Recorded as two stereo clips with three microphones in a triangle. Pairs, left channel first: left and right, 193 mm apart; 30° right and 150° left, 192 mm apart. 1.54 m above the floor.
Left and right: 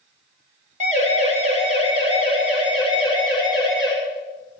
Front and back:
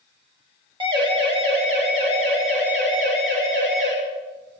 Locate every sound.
0.8 s a siren: 145° right, 4 m; by 3.9 s 160° right, 7 m